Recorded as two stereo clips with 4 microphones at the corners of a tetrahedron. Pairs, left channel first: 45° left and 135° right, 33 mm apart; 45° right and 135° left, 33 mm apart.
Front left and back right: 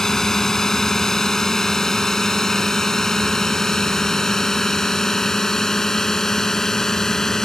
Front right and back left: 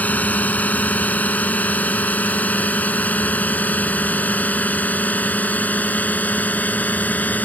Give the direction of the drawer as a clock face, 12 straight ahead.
No drawer in this recording.